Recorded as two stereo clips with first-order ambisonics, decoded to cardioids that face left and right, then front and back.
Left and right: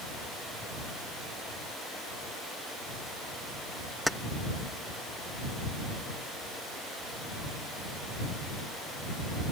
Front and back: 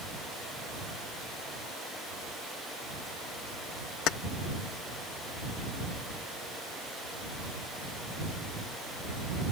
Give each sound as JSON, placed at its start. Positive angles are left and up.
{"t": 4.1, "sound": "keys jangling", "azimuth_deg": 5}